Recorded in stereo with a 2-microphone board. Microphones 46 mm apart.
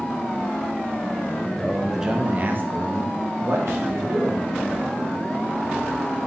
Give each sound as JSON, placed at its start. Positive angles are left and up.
{"t": 1.6, "sound": "a man speaking", "side_deg": 15, "distance_m": 1.4}